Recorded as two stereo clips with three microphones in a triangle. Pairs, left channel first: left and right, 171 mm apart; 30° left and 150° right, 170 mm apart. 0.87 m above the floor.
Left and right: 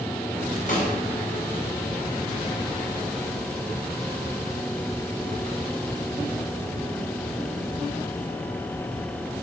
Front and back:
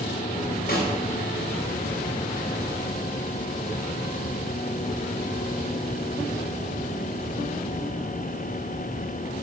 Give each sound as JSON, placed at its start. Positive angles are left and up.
{"t": 0.7, "sound": "a snare drum", "azimuth_deg": 55, "distance_m": 3.5}